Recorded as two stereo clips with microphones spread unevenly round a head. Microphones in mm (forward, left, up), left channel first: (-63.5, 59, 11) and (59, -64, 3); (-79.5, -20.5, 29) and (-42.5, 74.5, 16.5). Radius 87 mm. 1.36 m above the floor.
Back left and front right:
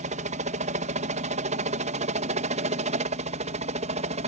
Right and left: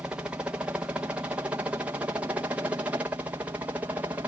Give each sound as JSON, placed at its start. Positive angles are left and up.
{"t": 0.0, "sound": "a helicopter", "azimuth_deg": -5}